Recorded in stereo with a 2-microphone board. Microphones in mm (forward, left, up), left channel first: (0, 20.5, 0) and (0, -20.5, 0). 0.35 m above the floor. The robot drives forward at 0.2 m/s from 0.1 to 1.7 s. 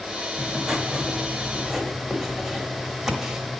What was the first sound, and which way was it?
Writing, 20° right (ahead or behind).